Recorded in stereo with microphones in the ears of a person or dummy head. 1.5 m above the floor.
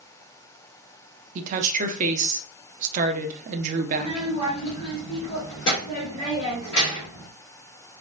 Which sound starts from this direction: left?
A child speaking, at 3.9 s.